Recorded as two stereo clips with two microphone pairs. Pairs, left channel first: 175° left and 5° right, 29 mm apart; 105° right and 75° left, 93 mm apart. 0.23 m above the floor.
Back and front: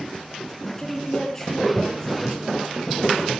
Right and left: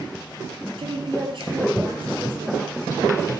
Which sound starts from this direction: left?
A woman speaking, at 0.8 s.